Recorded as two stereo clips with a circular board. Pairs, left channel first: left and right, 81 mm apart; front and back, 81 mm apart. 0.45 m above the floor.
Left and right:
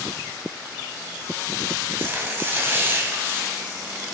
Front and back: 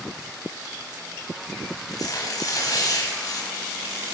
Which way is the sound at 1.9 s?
30° right.